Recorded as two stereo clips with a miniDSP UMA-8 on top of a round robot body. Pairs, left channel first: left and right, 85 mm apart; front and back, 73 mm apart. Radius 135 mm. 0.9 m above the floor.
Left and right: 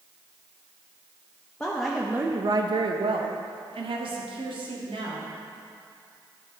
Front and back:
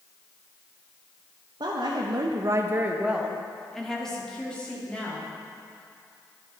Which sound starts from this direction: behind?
A woman speaking, at 1.6 s.